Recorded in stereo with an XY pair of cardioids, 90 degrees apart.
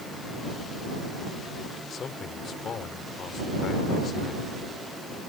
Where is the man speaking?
60° left.